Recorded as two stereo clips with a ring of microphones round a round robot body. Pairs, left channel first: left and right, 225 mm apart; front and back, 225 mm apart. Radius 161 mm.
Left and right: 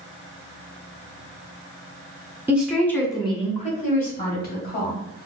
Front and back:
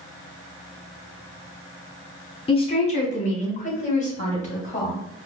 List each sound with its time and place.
2.5 s a woman speaking: 20° right, 1.3 m; by 5.0 s 55° left, 3 m